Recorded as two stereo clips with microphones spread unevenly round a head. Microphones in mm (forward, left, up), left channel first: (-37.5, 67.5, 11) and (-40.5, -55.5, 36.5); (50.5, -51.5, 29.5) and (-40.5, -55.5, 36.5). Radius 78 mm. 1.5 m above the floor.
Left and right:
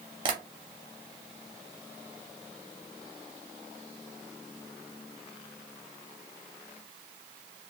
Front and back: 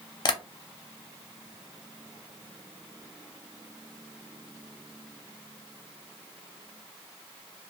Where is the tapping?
40° right, 0.5 m.